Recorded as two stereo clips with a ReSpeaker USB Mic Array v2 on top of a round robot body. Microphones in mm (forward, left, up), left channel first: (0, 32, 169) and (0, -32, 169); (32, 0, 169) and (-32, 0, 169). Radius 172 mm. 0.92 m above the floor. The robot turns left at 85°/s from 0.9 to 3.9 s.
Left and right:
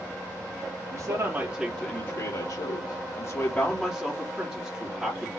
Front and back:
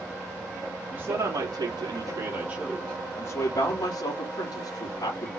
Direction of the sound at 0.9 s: 110° right.